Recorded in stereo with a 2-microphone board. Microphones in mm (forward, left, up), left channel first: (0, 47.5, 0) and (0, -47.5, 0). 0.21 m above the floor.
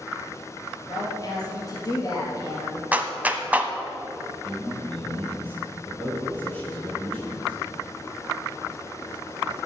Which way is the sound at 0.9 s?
35° left (ahead or behind).